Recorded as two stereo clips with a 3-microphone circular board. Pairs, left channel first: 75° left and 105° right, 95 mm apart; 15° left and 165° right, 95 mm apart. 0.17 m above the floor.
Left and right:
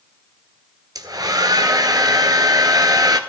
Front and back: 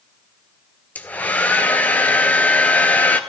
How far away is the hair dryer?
About 0.8 m.